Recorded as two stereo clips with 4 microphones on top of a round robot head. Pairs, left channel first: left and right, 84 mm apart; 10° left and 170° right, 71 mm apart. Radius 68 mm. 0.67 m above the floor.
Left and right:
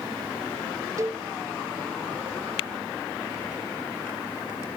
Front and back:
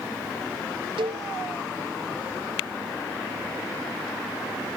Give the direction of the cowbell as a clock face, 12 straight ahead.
5 o'clock.